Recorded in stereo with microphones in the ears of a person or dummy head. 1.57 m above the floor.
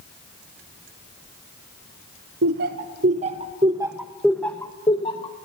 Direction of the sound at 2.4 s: 55° right (ahead or behind).